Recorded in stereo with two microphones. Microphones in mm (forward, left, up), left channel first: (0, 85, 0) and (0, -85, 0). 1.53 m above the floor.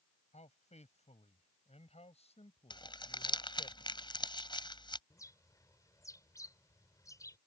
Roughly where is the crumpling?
Left.